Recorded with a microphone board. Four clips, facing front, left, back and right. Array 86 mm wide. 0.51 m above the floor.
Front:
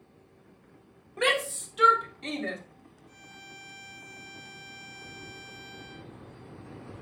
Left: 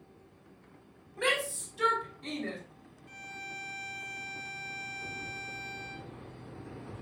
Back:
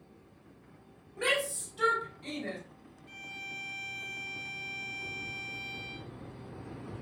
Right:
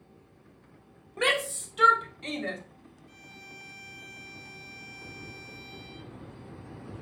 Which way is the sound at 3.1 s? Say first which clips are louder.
Left 8 dB, back 4 dB; 135° left.